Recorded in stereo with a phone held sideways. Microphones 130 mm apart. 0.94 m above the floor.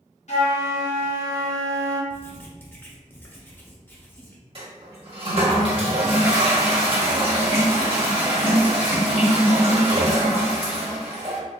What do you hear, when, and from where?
0.3 s a flute: 60° left (ahead or behind), 1.5 m
2.1 s writing: 15° left (ahead or behind), 0.8 m
4.5 s a toilet flushing: 45° right (ahead or behind), 1.3 m